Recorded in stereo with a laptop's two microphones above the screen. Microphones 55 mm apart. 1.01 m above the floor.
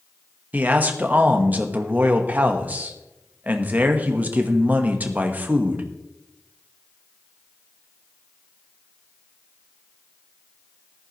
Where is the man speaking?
30° right (ahead or behind), 1.1 m.